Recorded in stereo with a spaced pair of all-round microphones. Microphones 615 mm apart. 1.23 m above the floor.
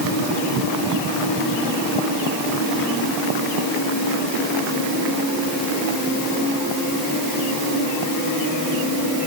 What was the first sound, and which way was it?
Only background noise.